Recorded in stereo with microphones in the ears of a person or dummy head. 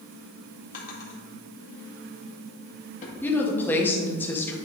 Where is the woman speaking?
10° left (ahead or behind), 1.4 m.